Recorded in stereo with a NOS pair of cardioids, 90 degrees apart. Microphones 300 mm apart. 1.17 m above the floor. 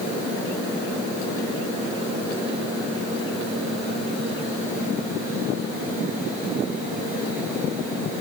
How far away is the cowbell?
No cowbell in this recording.